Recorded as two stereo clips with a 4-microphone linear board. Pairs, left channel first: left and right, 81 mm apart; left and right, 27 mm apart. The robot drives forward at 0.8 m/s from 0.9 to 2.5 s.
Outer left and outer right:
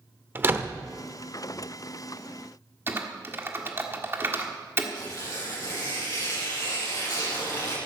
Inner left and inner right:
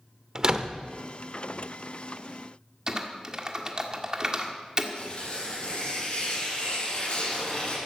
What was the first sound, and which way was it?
A door slam, 25° right (ahead or behind).